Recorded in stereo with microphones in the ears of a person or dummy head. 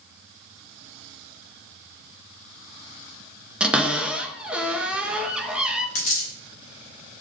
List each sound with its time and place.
3.6 s a cupboard door: 5° right (ahead or behind), 0.6 m
6.0 s a dropped coin: 40° left (ahead or behind), 1.2 m